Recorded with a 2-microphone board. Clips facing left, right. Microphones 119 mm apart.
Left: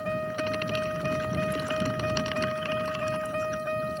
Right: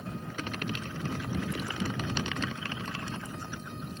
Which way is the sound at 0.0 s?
80° left.